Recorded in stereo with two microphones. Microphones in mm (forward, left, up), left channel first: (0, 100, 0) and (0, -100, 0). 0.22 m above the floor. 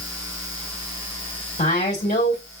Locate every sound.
1.6 s a woman speaking: 40° left (ahead or behind), 1.8 m